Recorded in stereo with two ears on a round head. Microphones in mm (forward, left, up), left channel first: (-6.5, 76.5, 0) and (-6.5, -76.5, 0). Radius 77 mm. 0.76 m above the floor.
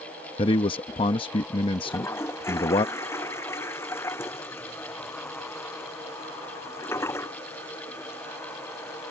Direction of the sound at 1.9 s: 15° left (ahead or behind).